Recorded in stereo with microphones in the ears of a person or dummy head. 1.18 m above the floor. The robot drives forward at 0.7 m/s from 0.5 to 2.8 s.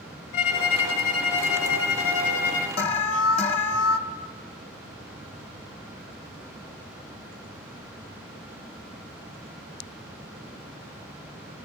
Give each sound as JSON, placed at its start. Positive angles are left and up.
{"t": 0.3, "sound": "a violin", "side_deg": 60, "distance_m": 2.0}
{"t": 2.8, "sound": "an alarm", "side_deg": 35, "distance_m": 1.3}